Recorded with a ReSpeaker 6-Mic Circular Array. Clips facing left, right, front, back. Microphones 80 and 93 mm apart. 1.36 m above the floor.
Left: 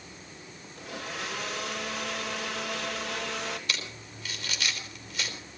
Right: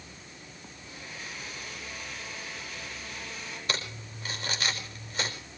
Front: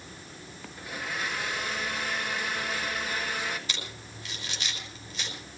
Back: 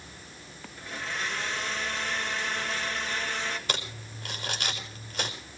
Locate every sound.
0.8 s a blender: 80° left, 3 m
3.7 s crumpling: 140° right, 4.5 m